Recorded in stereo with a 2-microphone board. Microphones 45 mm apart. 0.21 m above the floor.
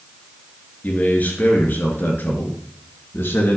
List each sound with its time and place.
0.8 s a man speaking: 40° left (ahead or behind), 3.5 m; by 3.6 s 60° left (ahead or behind), 2.5 m